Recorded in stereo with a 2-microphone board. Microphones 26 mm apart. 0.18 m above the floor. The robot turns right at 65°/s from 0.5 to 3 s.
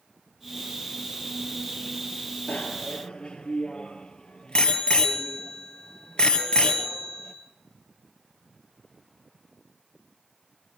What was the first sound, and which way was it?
A bicycle bell, 70° left (ahead or behind).